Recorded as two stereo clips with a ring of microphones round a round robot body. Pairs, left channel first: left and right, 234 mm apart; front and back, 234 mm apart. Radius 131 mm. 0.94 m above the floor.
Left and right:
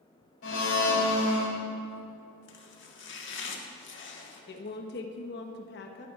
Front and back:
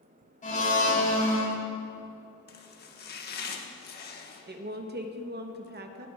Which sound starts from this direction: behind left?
A woman speaking, at 4.5 s.